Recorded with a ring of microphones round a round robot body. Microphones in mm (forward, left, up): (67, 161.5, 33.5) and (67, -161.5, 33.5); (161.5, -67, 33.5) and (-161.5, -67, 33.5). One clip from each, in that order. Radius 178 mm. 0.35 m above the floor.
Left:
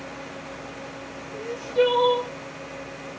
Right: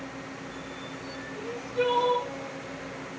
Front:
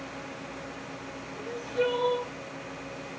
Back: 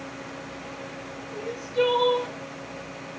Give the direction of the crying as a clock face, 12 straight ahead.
7 o'clock.